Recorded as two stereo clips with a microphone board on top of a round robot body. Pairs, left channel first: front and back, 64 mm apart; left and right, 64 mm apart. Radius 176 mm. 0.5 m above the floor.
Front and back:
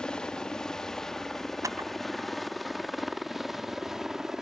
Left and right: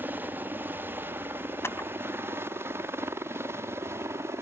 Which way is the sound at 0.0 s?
70° right.